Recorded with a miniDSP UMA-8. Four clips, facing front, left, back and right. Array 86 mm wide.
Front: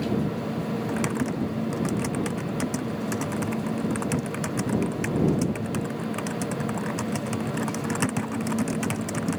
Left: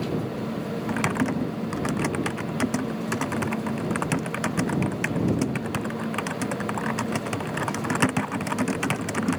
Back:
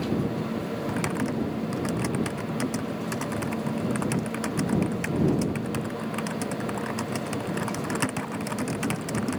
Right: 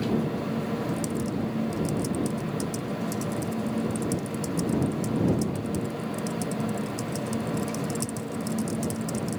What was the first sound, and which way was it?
Typing on a keyboard, 90° left.